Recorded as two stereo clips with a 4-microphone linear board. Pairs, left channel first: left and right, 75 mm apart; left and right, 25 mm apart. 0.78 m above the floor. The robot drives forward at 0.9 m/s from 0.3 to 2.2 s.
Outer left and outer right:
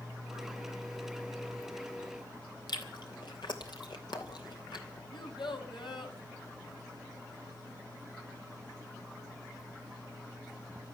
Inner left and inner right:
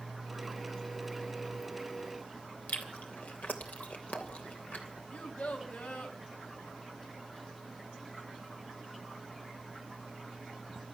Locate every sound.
2.7 s chewing: 80° left, 3 m
5.1 s a child speaking: 85° left, 3.5 m